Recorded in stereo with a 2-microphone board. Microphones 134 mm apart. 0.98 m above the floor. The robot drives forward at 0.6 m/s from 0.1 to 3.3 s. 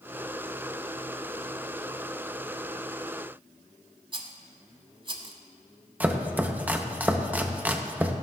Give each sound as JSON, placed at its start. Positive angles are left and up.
{"t": 4.1, "sound": "a rattle", "side_deg": -40, "distance_m": 1.0}
{"t": 6.0, "sound": "chopping", "side_deg": -10, "distance_m": 0.7}